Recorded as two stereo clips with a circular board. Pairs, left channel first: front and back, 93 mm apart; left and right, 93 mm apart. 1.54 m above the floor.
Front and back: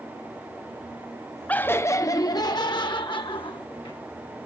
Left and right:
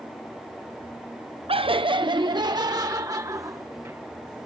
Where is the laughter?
75° right; by 4.0 s 30° right.